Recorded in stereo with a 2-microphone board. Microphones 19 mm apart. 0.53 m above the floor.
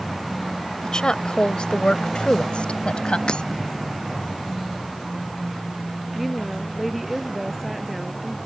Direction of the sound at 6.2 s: Centre (ahead or behind).